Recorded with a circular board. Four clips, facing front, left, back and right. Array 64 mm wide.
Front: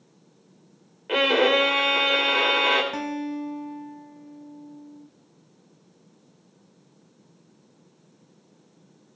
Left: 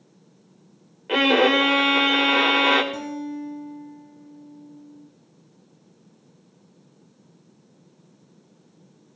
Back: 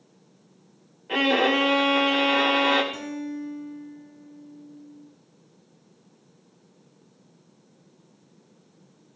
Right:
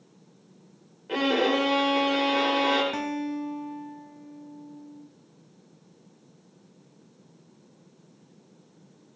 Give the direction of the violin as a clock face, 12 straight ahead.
10 o'clock.